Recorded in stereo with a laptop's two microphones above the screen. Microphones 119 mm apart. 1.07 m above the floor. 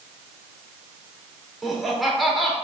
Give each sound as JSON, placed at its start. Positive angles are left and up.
{"t": 1.6, "sound": "laughter", "side_deg": 0, "distance_m": 3.5}